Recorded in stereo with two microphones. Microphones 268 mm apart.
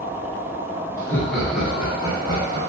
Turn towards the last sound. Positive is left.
turn(degrees=-20)  # may be behind; listen again after turning